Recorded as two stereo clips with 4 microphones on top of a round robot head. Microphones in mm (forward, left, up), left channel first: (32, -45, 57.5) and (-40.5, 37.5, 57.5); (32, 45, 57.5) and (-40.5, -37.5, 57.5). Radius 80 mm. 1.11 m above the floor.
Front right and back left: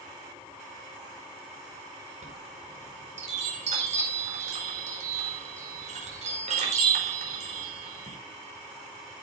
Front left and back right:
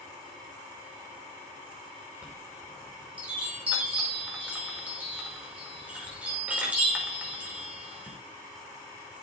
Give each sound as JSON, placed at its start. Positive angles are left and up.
{"t": 2.2, "sound": "a chime", "azimuth_deg": 150, "distance_m": 5.0}